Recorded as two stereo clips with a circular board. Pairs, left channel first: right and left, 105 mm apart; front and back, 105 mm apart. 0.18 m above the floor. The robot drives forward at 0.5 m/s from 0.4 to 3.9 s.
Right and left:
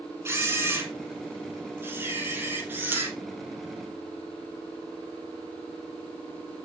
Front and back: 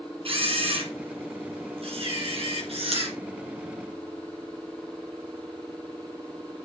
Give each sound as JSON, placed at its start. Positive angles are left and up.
{"t": 0.2, "sound": "a camera shutter", "azimuth_deg": 155, "distance_m": 4.5}